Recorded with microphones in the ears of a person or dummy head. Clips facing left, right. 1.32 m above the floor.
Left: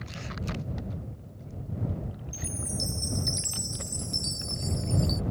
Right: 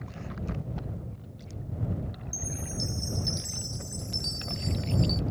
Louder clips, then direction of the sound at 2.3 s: Left 1 dB; centre (ahead or behind).